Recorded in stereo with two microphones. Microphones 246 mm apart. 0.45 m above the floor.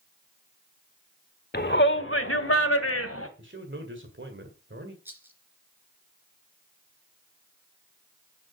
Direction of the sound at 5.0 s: 10° right (ahead or behind).